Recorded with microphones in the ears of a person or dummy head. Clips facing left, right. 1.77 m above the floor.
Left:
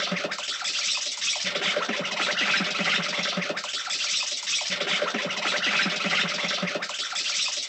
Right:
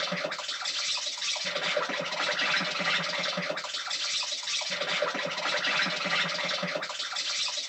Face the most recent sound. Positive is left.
turn(degrees=40)  # may be behind; listen again after turning